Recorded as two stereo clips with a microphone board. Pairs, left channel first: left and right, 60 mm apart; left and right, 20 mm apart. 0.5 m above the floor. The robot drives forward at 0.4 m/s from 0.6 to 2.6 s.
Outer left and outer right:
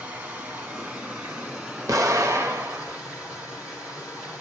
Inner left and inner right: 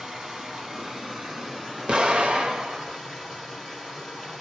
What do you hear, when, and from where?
0.0 s running water: 25° right (ahead or behind), 1.3 m; by 4.4 s 15° right (ahead or behind), 2 m
1.9 s an explosion: 70° right (ahead or behind), 0.7 m; by 3.0 s 50° right (ahead or behind), 0.8 m